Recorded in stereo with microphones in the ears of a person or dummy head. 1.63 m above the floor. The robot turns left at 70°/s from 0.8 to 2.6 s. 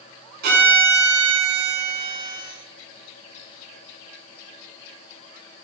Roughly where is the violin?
Ahead right.